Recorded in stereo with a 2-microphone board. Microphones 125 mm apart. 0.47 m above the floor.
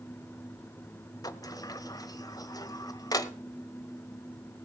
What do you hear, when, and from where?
1.2 s a sliding door: 30° left (ahead or behind), 0.8 m